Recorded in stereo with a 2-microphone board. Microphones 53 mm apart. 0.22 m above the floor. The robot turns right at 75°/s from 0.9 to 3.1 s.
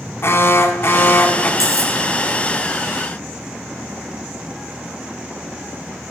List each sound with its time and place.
0.2 s an alarm: 90° left, 1.2 m; by 1.5 s 135° left, 1.2 m
1.6 s cutlery clinking: 80° left, 4 m; by 1.9 s 65° left (ahead or behind), 4 m